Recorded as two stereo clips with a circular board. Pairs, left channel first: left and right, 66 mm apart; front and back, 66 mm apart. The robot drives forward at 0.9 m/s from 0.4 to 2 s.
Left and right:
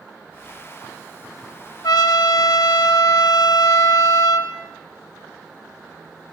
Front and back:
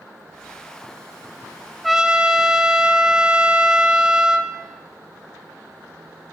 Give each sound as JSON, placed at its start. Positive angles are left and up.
{"t": 1.8, "sound": "a trumpet", "azimuth_deg": 90, "distance_m": 0.6}